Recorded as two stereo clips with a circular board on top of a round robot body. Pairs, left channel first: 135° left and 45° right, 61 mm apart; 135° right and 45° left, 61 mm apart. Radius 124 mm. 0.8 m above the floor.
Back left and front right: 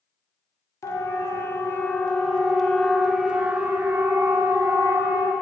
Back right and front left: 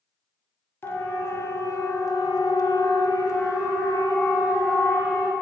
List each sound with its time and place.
0.8 s a siren: 170° left, 2 m; by 5.3 s 90° right, 3 m